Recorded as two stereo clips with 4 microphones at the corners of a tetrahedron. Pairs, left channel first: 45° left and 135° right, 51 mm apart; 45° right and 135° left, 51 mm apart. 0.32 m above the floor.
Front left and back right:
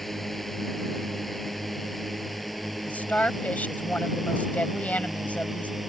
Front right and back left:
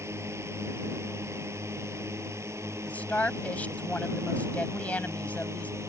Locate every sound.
0.0 s a drone: 130° left; by 5.9 s 135° left
2.9 s a woman speaking: straight ahead